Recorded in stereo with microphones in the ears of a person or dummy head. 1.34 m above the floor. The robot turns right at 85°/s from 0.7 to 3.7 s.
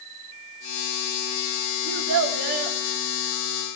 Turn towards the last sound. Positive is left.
turn(degrees=45)